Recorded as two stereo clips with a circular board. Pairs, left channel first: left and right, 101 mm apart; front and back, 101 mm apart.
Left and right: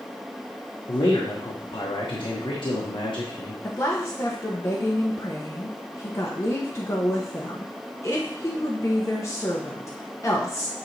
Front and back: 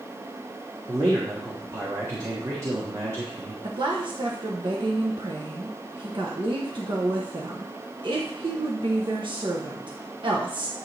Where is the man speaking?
125° left, 1.3 m.